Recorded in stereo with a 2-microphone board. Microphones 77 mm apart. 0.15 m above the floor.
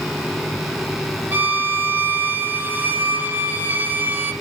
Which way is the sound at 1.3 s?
20° right (ahead or behind).